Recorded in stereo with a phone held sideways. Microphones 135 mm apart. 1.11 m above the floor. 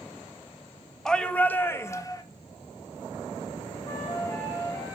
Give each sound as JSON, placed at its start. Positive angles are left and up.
{"t": 1.1, "sound": "a shout", "side_deg": 5, "distance_m": 1.4}
{"t": 3.9, "sound": "a flute", "side_deg": 20, "distance_m": 4.5}